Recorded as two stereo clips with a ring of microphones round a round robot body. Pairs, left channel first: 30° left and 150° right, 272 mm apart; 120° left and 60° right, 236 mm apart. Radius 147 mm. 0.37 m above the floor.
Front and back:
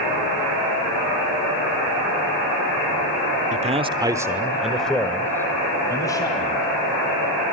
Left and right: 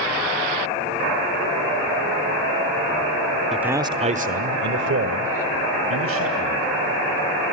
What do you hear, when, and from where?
3.5 s a man speaking: 150° right, 1.0 m; by 6.7 s 45° right, 3 m